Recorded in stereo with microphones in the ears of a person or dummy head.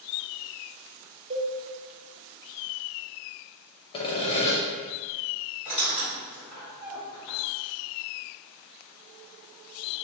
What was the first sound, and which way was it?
A cowbell, 30° right (ahead or behind).